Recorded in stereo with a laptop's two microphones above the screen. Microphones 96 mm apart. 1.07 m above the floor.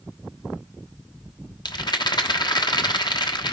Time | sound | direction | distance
1.6 | a rattle | 50° left (ahead or behind) | 1.2 m